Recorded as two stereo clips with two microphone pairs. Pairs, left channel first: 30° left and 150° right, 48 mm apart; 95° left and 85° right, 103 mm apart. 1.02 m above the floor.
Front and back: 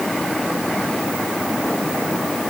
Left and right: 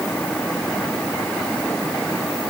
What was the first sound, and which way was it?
Only background noise.